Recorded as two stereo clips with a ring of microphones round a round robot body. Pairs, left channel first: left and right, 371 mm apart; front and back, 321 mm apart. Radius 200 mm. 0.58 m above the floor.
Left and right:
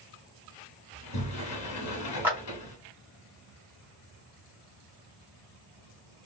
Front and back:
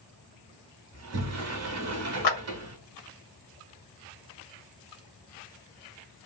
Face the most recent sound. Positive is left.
turn(degrees=-5)